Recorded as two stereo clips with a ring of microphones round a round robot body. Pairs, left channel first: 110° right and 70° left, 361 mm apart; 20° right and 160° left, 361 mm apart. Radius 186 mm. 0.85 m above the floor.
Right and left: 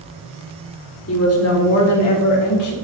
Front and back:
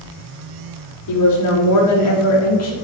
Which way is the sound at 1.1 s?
60° right.